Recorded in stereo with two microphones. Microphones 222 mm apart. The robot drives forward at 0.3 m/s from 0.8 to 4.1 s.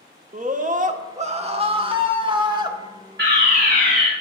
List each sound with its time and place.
0.3 s a scream: 35° right (ahead or behind), 0.7 m; by 2.8 s 20° right (ahead or behind), 1.2 m
3.2 s a fire alarm: 50° right (ahead or behind), 4.5 m